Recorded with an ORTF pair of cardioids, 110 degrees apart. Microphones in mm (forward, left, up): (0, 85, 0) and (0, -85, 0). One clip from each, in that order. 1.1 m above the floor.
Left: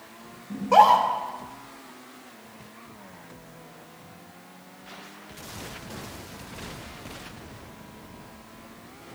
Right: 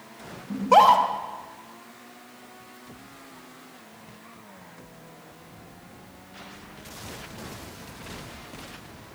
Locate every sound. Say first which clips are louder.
0.5 s a scream: even; 25° right, 1.4 m